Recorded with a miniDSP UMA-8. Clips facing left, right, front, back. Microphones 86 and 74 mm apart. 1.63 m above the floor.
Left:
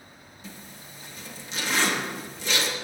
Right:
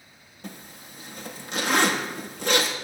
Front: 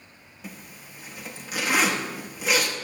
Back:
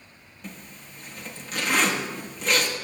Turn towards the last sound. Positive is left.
turn(degrees=-80)